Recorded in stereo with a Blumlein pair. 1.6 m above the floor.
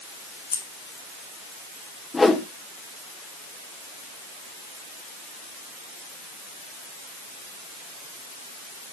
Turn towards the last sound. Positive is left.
turn(degrees=10)